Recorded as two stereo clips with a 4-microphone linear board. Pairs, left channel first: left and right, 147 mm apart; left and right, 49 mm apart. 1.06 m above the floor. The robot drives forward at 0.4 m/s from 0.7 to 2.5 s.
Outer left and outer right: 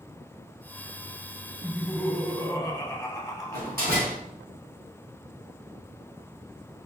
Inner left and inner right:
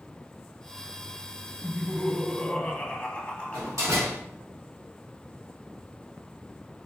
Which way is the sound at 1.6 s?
5° left (ahead or behind).